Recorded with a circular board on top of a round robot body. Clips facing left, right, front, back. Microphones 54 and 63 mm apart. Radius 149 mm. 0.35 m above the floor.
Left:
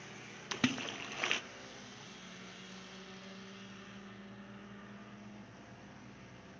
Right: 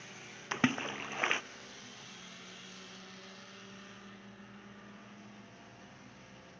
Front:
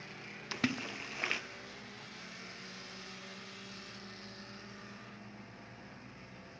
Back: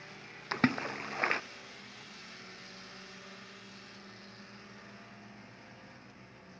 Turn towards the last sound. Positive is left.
turn(degrees=-145)